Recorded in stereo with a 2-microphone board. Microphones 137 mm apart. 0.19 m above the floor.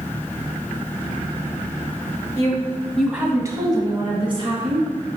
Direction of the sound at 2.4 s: 25° left (ahead or behind).